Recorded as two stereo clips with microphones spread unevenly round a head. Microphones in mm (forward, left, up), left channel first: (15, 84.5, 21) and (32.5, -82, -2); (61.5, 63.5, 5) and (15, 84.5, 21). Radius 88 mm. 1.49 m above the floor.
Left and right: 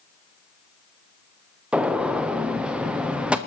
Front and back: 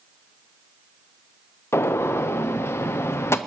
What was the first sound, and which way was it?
A gunshot, straight ahead.